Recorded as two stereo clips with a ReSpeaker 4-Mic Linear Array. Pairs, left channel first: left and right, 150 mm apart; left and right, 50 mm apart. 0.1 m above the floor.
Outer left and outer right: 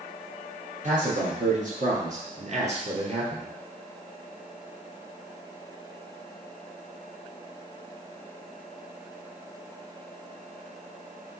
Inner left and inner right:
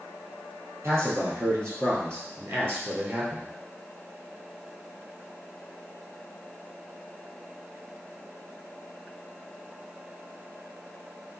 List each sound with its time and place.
0.8 s a man speaking: 60° right (ahead or behind), 2 m; by 3.5 s 40° right (ahead or behind), 1.7 m